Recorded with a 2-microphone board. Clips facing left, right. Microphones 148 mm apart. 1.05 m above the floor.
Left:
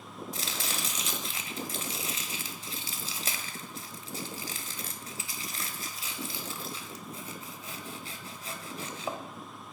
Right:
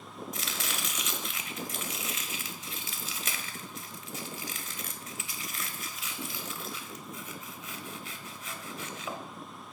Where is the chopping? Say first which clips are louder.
Left 2 dB; 30° left (ahead or behind), 0.9 m.